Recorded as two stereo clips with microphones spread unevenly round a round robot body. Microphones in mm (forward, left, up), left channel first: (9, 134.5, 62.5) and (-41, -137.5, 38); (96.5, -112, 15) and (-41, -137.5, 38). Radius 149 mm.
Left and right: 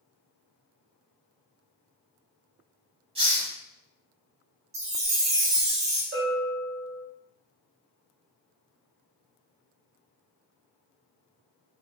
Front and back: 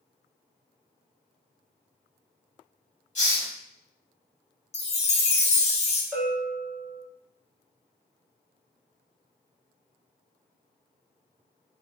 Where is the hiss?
30° right, 1.0 m.